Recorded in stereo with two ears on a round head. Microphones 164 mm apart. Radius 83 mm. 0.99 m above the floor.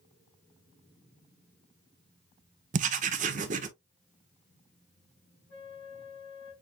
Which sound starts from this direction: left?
A flute, at 5.5 s.